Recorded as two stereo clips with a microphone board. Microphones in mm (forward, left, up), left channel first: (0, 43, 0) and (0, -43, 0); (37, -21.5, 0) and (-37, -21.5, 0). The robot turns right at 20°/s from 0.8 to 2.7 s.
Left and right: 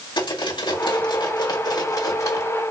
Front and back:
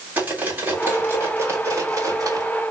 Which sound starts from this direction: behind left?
Cutlery clinking, at 0.2 s.